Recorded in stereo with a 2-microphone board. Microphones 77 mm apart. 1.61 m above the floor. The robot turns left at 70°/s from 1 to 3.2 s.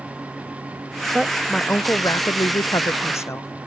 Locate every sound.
1.1 s a woman speaking: 165° right; by 3.5 s 50° left